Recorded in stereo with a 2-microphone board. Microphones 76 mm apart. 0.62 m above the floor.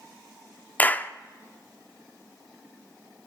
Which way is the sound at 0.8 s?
20° left (ahead or behind).